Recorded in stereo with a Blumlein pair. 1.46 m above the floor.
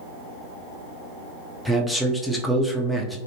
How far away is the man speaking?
About 0.6 m.